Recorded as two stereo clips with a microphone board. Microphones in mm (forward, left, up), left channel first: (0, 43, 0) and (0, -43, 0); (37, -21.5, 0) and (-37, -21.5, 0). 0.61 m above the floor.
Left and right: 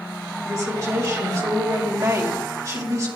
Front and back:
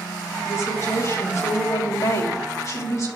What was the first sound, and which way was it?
A woman speaking, 45° right.